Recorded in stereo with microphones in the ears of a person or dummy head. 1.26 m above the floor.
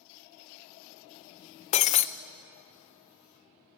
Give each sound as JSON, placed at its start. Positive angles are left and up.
{"t": 1.7, "sound": "breaking glass", "side_deg": 30, "distance_m": 0.5}